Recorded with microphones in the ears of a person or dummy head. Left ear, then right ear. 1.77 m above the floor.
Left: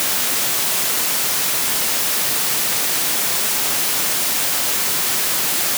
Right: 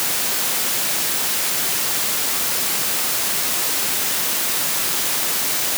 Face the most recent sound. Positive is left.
No sound to turn to.